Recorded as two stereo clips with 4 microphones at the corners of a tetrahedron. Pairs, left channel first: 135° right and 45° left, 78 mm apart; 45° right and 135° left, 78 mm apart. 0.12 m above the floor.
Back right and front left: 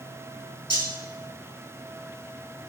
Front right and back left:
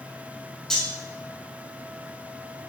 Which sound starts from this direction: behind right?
Cutlery clinking, at 0.7 s.